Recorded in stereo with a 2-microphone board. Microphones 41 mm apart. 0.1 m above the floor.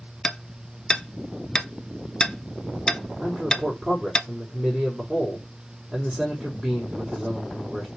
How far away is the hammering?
About 0.8 m.